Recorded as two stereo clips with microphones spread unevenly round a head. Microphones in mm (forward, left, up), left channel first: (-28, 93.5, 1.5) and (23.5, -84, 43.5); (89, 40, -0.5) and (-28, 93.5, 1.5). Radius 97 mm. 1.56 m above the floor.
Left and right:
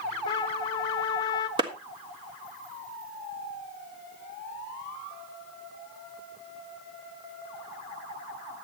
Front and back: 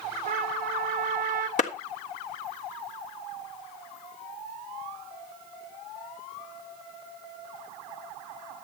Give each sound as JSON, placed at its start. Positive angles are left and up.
{"t": 0.3, "sound": "a trumpet", "azimuth_deg": 175, "distance_m": 1.5}
{"t": 1.6, "sound": "a clap", "azimuth_deg": -15, "distance_m": 1.5}